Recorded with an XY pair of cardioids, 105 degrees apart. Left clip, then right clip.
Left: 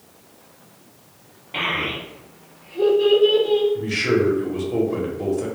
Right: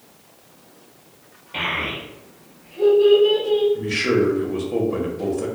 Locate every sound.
1.5 s a child speaking: 20° left, 1.2 m; by 3.6 s 75° left, 1.1 m
3.8 s a man speaking: 10° right, 0.9 m